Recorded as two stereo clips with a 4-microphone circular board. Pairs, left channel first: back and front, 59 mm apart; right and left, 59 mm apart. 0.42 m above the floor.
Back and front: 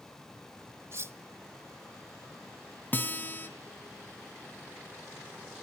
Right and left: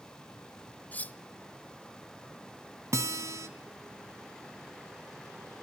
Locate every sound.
0.9 s cutlery clinking: 30° right, 0.7 m
2.9 s a guitar: 125° left, 1.8 m